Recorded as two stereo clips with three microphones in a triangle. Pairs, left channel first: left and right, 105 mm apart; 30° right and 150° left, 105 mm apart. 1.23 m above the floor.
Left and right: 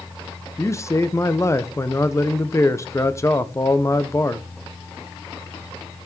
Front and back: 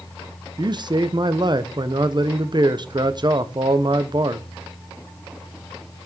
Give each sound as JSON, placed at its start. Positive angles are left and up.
{"t": 0.6, "sound": "a man speaking", "azimuth_deg": 140, "distance_m": 0.8}